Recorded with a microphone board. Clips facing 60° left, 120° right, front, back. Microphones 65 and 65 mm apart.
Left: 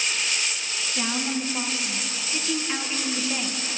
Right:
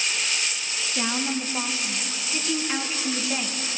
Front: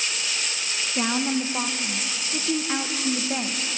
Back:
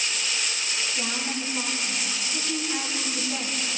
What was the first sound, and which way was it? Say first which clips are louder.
A woman speaking: right 1 dB, front 11 dB; 40° right.